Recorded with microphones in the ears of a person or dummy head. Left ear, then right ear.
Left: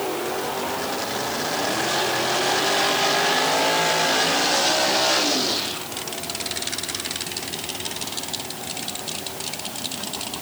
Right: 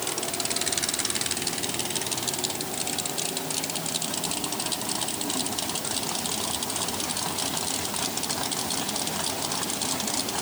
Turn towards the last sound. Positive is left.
No sound to turn to.